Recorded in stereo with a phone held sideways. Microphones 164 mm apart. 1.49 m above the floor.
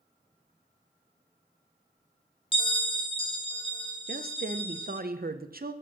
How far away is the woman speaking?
About 0.8 m.